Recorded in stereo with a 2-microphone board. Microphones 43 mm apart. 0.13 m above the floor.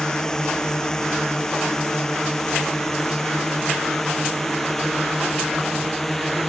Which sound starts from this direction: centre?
A drone, at 0.0 s.